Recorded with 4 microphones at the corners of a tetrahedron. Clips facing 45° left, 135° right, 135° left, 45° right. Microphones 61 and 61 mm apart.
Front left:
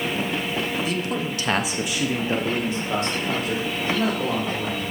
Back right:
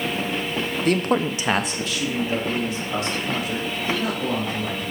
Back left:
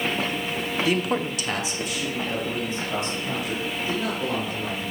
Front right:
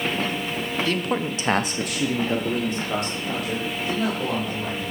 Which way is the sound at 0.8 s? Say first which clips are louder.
Back right 5 dB, back left 2 dB; 155° right.